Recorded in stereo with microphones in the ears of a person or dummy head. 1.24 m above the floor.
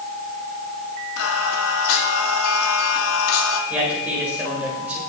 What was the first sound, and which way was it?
Singing, 80° left.